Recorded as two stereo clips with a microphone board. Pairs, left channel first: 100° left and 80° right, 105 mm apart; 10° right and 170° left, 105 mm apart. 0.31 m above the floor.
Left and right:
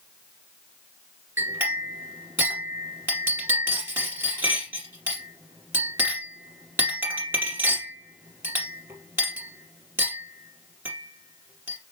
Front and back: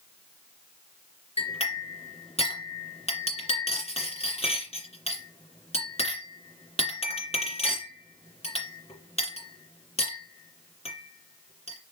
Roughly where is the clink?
Ahead.